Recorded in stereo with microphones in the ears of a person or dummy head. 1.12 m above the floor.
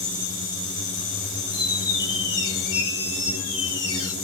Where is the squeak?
20° left (ahead or behind), 2 m.